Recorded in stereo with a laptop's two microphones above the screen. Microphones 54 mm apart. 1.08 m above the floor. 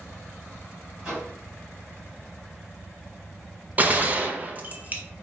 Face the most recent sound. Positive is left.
turn(degrees=-30)  # may be behind; listen again after turning